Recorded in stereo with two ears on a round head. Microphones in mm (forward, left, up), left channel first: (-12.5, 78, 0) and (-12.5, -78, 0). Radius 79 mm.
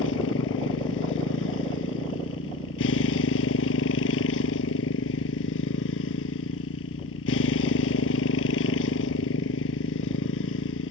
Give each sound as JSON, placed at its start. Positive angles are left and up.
{"t": 0.0, "sound": "a motorcycle", "side_deg": 90}